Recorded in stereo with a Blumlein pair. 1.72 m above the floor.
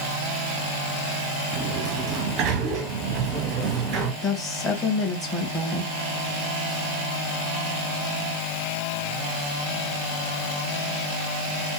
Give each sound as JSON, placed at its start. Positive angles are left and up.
{"t": 1.5, "sound": "a sliding door", "azimuth_deg": -35, "distance_m": 0.8}
{"t": 4.2, "sound": "a woman speaking", "azimuth_deg": 15, "distance_m": 1.4}